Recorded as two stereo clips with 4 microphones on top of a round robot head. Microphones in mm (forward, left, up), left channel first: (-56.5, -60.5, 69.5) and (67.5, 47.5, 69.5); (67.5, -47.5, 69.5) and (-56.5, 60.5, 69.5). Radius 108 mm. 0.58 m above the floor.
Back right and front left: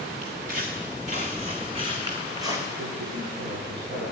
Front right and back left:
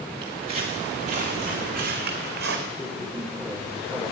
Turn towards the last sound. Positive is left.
turn(degrees=45)